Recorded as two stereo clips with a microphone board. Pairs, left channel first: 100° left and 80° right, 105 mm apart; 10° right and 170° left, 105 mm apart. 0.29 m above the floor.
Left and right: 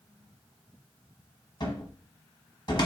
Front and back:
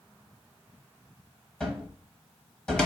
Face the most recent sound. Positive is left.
turn(degrees=70)